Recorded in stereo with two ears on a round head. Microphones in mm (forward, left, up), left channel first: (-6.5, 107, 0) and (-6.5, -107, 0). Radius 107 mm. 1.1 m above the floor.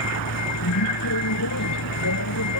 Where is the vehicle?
85° left.